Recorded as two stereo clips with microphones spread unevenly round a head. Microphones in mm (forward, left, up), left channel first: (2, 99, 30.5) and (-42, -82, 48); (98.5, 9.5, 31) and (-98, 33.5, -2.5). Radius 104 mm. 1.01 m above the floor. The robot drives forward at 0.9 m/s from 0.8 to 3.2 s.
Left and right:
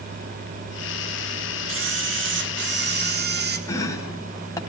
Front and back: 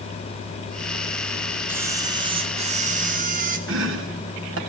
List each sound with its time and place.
1.7 s a camera shutter: 110° right, 1.9 m; by 3.6 s 140° right, 2.5 m
3.7 s chopping: 150° left, 3.5 m